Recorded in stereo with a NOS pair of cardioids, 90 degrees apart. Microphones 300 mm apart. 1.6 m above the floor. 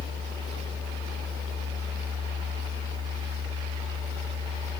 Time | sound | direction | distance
0.0 | a fan | 20° right | 5 m